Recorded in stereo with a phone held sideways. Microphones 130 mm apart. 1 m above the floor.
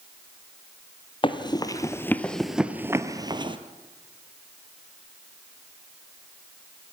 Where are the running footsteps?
40° left (ahead or behind), 1.4 m; by 3.6 s 40° right (ahead or behind), 1.3 m.